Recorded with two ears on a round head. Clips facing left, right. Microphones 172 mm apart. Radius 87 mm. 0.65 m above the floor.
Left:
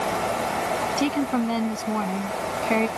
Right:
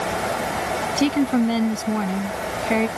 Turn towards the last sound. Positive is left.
turn(degrees=-5)  # may be behind; listen again after turning